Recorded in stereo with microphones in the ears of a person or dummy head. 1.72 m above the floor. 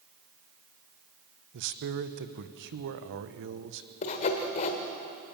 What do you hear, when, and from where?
1.5 s a man speaking: 60° right (ahead or behind), 1.3 m
4.0 s sawing: 40° left (ahead or behind), 2.0 m